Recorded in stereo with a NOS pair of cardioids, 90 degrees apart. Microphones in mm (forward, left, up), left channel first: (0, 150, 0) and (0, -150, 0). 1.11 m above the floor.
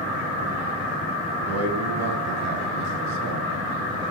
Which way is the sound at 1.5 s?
50° right.